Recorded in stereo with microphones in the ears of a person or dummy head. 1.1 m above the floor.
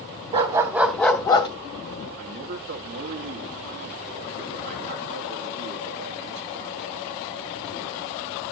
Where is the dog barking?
25° right (ahead or behind), 1.0 m; by 1.5 s 30° left (ahead or behind), 1.1 m.